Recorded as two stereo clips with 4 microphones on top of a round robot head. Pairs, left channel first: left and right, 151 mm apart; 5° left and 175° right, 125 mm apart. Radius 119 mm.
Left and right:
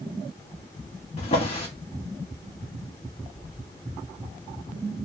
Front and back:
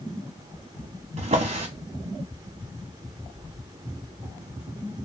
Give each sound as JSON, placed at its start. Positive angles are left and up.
{"t": 1.2, "sound": "a drawer", "azimuth_deg": 150, "distance_m": 1.0}